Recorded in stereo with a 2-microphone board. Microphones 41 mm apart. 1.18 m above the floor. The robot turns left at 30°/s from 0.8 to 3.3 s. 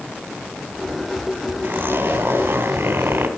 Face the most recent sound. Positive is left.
turn(degrees=-120)